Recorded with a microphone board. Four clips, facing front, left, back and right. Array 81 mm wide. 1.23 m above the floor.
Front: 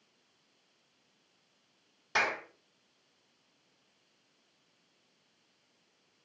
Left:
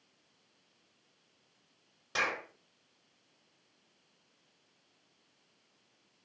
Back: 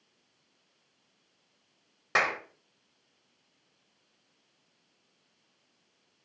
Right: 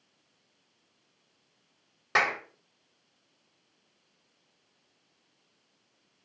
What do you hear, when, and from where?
2.1 s a clap: 145° right, 4 m